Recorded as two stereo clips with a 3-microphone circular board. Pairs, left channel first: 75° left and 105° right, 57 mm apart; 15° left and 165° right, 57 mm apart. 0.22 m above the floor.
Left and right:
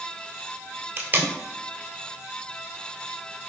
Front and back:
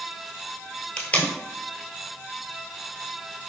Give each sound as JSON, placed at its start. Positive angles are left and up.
{"t": 1.0, "sound": "tape being pulled", "azimuth_deg": -45, "distance_m": 0.7}